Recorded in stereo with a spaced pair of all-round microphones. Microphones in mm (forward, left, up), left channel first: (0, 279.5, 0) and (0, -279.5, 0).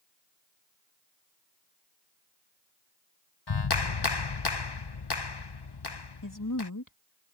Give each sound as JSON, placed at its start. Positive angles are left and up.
{"t": 3.5, "sound": "a clap", "side_deg": 45}
{"t": 6.2, "sound": "a woman speaking", "side_deg": 35}